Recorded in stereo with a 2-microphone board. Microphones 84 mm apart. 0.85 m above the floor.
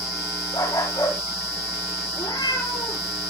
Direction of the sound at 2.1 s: 60° left (ahead or behind).